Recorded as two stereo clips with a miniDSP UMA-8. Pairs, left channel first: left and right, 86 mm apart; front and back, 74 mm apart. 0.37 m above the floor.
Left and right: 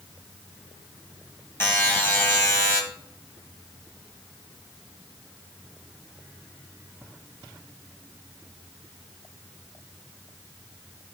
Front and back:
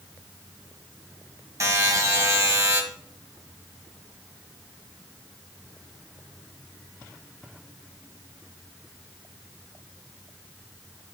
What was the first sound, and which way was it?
A buzzer, 150° left.